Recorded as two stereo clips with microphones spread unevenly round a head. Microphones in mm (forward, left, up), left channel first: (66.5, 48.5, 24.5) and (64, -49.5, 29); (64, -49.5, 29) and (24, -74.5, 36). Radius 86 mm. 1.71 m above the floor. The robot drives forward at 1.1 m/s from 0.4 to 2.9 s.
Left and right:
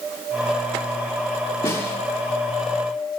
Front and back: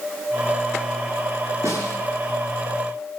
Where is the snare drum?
160° left, 5.5 m.